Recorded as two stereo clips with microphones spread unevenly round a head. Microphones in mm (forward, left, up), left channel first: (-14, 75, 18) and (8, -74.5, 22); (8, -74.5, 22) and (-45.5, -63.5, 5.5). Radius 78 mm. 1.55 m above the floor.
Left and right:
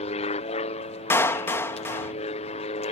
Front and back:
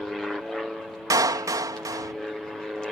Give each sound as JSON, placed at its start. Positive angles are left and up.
{"t": 0.0, "sound": "an aircraft", "azimuth_deg": 85}
{"t": 1.1, "sound": "a clap", "azimuth_deg": 175}